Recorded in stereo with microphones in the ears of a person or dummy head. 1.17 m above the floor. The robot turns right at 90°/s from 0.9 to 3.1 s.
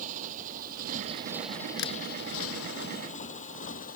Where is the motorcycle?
45° right (ahead or behind); by 4.0 s 50° left (ahead or behind).